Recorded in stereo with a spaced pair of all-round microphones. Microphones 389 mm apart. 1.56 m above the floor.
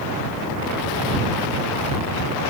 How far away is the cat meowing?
I don't hear a cat meowing.